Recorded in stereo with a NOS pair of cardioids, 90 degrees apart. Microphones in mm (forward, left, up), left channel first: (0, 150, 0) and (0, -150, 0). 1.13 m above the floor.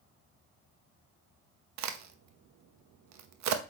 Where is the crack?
65° right, 1.0 m.